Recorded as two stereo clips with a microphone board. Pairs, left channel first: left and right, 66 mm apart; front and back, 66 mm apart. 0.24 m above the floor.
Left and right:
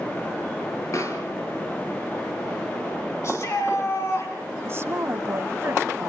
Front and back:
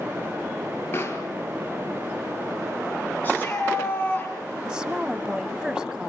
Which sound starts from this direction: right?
A woman speaking, at 4.7 s.